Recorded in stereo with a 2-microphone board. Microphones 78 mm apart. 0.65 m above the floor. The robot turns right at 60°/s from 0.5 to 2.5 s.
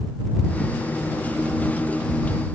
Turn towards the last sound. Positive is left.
No sound to turn to.